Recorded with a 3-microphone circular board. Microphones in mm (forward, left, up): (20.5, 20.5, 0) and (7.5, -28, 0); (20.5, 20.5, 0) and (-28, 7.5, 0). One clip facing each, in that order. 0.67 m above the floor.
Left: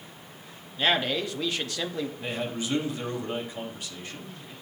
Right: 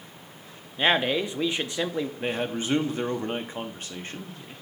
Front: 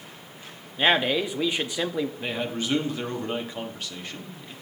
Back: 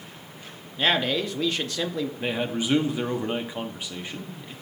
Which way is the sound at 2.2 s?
100° right.